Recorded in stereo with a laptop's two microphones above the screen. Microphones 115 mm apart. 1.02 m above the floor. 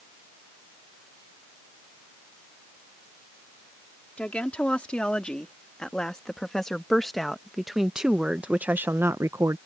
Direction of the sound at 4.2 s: 10° left (ahead or behind).